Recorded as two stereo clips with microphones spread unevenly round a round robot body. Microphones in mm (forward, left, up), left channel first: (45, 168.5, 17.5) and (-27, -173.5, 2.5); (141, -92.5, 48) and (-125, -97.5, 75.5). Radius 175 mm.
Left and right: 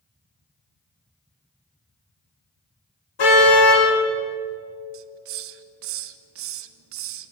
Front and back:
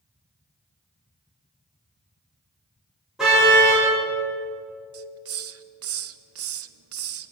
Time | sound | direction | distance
3.2 | a car horn | 95° left | 9.5 m
4.9 | a hiss | 150° right | 1.2 m